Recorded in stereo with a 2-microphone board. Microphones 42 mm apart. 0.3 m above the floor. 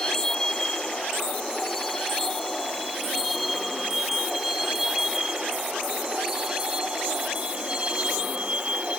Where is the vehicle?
15° left (ahead or behind); by 9.0 s 25° right (ahead or behind).